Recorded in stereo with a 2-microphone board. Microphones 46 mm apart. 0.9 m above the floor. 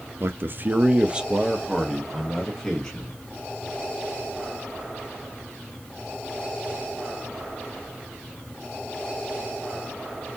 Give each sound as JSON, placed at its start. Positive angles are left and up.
{"t": 0.2, "sound": "a man speaking", "side_deg": -55, "distance_m": 0.7}